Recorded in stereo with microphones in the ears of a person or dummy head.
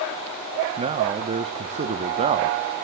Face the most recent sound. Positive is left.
turn(degrees=-35)  # may be behind; listen again after turning